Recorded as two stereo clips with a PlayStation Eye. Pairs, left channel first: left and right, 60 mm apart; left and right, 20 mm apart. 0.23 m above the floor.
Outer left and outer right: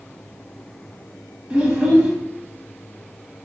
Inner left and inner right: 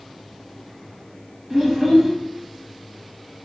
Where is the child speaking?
20° right (ahead or behind), 0.7 m.